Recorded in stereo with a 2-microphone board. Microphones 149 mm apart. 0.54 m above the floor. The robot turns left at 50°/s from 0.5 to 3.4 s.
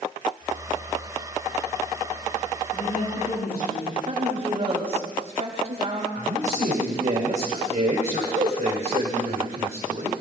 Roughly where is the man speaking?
Right.